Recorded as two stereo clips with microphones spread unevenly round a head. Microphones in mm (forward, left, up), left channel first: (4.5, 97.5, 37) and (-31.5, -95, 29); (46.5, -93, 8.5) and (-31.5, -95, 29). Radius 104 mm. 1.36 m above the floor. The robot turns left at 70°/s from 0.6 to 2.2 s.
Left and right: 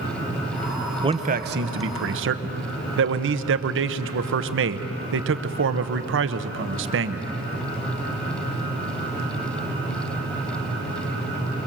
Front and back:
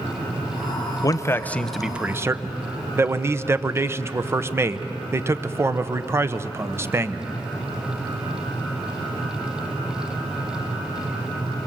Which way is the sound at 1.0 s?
35° right.